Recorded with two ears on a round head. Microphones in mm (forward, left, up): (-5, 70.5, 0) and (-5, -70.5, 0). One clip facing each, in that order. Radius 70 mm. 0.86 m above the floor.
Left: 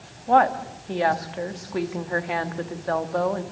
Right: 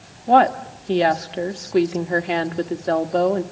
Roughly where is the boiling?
No boiling in this recording.